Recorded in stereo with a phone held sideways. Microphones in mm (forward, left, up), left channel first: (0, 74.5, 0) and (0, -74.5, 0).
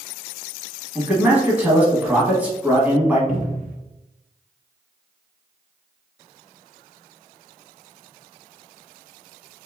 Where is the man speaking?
10° right (ahead or behind), 1.3 m.